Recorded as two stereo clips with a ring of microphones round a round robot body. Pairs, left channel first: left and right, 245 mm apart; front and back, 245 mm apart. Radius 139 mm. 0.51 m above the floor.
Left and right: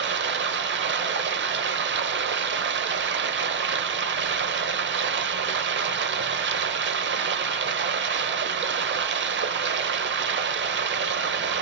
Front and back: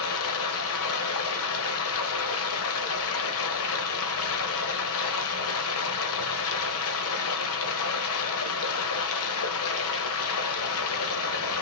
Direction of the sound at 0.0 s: 40° right.